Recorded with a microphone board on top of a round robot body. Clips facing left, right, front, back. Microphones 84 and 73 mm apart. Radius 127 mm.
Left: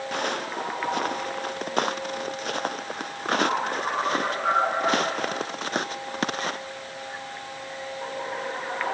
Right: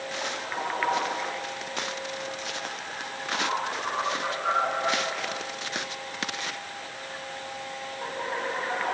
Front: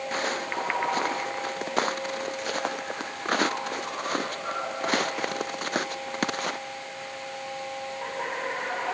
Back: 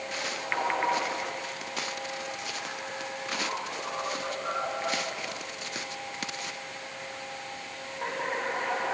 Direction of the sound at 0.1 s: 50° left.